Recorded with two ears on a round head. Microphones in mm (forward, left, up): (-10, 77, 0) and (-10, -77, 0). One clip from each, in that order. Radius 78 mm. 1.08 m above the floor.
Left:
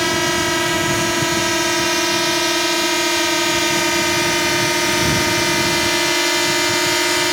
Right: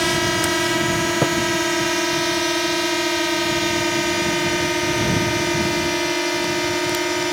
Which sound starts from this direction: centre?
A drone, at 0.0 s.